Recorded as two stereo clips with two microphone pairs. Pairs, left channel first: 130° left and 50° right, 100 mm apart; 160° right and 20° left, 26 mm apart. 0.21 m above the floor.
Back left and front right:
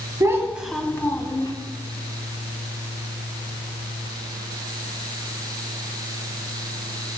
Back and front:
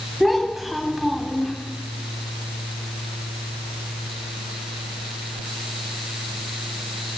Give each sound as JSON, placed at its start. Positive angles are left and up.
{"t": 0.2, "sound": "a child speaking", "azimuth_deg": -65, "distance_m": 1.1}